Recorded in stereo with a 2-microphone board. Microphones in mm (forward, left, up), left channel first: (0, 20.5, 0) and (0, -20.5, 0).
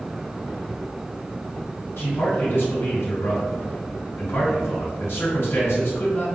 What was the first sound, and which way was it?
A man speaking, 65° left (ahead or behind).